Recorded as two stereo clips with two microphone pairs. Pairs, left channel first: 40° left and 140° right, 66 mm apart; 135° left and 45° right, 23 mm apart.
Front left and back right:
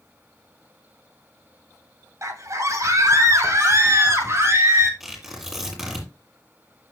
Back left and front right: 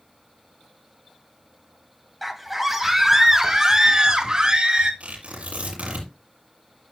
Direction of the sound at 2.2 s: 135° right.